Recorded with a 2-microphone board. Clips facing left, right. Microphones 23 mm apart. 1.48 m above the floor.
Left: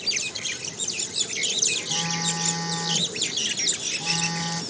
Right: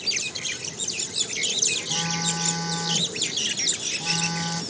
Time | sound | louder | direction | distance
1.9 | a phone buzzing | even | 10° right (ahead or behind) | 1.0 m